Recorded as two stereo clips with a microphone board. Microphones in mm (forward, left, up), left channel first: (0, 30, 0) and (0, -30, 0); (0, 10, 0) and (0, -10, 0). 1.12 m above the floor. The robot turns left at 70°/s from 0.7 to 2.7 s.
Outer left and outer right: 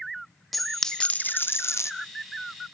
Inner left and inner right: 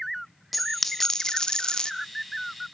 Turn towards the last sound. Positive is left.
turn(degrees=35)